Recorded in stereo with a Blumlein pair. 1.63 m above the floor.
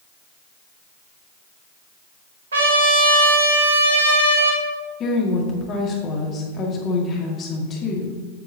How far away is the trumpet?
About 1.7 m.